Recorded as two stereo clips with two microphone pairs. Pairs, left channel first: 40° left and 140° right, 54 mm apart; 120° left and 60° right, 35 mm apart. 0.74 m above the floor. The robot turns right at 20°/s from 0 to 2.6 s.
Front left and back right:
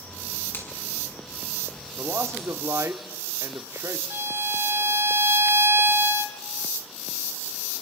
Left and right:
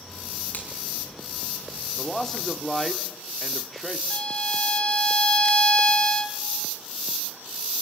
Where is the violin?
175° left, 1.9 m.